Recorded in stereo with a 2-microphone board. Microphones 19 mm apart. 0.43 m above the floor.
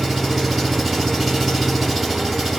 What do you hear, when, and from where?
0.0 s an engine running: centre (ahead or behind), 2 m